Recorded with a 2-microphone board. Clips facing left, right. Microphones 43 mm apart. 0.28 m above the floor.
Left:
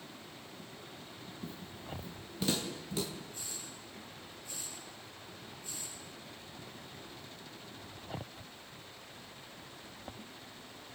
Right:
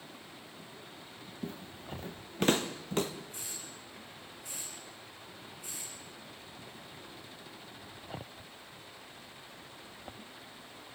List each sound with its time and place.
1.4 s footsteps: 55° right (ahead or behind), 1.6 m; by 3.1 s 45° right (ahead or behind), 2.5 m
3.3 s a hiss: 75° right (ahead or behind), 7 m